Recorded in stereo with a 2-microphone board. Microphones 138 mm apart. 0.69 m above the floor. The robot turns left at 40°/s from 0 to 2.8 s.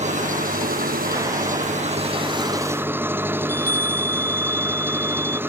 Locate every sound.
0.0 s an engine running: 55° right; by 5.5 s 165° right
3.4 s a chime: 75° left (ahead or behind)